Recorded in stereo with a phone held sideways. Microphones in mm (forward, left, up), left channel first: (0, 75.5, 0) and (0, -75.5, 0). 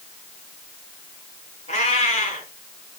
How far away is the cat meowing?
About 4 m.